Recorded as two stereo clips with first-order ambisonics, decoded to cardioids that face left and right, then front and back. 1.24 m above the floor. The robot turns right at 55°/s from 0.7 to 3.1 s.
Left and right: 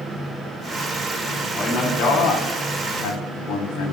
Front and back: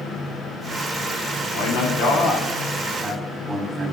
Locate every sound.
1.5 s a man speaking: 20° left, 3.5 m; by 3.9 s 105° left, 3.5 m